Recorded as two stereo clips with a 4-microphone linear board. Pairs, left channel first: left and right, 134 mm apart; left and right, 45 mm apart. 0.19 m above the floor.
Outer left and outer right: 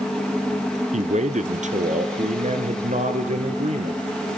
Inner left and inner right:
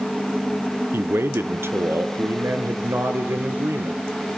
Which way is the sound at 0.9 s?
60° right (ahead or behind).